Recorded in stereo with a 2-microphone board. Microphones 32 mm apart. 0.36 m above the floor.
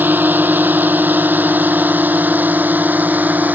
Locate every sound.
0.0 s a drone: 75° right (ahead or behind); by 3.6 s 60° right (ahead or behind)